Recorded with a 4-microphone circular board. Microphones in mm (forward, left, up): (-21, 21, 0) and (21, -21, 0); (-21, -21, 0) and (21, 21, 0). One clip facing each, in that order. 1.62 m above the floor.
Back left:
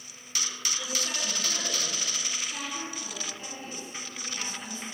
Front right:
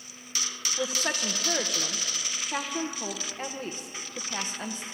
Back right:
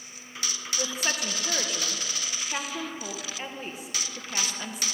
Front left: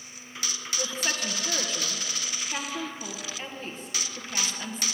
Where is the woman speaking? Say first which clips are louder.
Front right 7 dB, back right 1 dB; 55° right, 1.4 m.